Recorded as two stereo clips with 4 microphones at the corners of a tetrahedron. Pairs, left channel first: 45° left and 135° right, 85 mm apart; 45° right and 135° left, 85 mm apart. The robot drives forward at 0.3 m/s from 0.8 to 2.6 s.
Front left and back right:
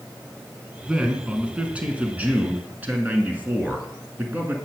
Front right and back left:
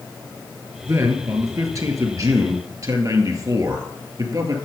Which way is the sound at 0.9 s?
150° left.